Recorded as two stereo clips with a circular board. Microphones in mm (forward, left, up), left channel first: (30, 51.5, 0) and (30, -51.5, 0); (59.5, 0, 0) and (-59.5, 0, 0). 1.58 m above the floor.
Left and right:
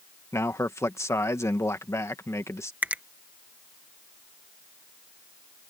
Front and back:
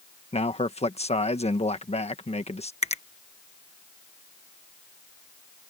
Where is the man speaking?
25° left.